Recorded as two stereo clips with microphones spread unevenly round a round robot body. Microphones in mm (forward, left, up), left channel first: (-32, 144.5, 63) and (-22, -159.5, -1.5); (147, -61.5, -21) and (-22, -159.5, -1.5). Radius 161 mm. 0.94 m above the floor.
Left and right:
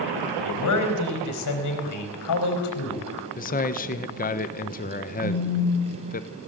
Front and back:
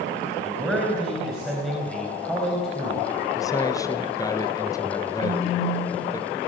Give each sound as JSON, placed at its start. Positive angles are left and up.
{"t": 0.4, "sound": "a man speaking", "azimuth_deg": 120, "distance_m": 4.0}
{"t": 3.4, "sound": "a man speaking", "azimuth_deg": 40, "distance_m": 0.9}
{"t": 5.2, "sound": "a phone buzzing", "azimuth_deg": 150, "distance_m": 3.5}